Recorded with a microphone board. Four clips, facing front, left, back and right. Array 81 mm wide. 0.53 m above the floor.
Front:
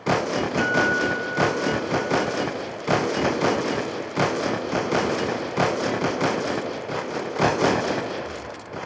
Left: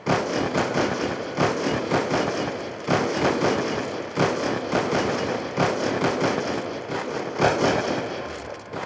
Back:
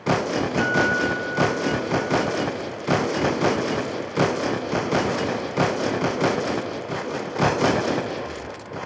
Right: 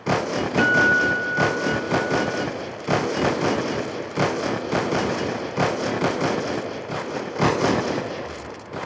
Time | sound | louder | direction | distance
0.6 | a guitar | right 11 dB, even | 90° right | ?